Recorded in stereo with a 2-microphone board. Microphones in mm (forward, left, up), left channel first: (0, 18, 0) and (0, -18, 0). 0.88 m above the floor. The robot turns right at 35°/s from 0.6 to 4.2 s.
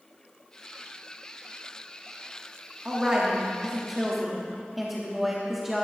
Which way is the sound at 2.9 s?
50° right.